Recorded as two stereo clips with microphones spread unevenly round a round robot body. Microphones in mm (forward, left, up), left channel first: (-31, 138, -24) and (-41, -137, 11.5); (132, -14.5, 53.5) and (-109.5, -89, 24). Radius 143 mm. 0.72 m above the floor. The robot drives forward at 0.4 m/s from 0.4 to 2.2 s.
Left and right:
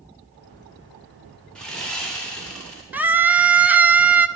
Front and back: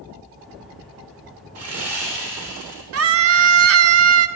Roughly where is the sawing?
Behind.